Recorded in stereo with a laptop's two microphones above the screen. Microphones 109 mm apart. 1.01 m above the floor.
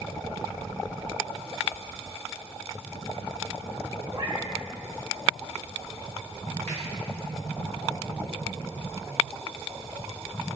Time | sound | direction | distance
4.1 | a cat meowing | 35° right (ahead or behind) | 1.1 m
6.7 | a finger snap | 20° left (ahead or behind) | 1.8 m